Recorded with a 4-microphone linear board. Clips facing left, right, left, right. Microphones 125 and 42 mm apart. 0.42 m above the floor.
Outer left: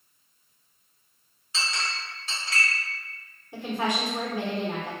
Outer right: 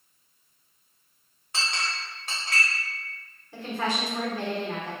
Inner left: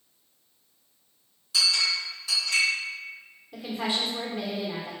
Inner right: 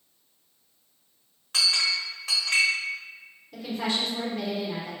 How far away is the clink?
About 1.0 m.